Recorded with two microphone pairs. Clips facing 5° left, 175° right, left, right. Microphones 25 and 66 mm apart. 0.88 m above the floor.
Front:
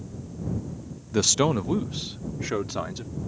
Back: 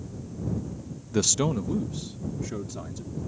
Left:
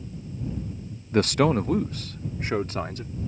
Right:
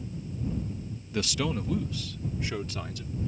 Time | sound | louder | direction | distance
1.1 | a man speaking | front 3 dB, left 10 dB | 80° left | ?